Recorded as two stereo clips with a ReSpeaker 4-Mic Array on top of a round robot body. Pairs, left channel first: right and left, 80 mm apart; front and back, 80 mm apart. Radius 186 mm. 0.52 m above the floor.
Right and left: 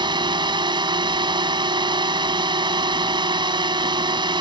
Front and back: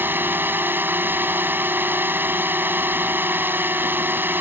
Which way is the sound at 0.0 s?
115° left.